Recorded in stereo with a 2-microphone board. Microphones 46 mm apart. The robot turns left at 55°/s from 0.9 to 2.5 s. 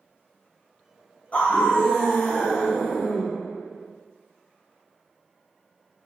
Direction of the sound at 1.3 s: 80° left.